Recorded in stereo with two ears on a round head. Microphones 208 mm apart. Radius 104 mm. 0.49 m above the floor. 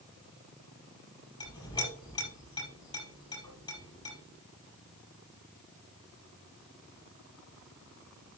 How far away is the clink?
About 6.5 m.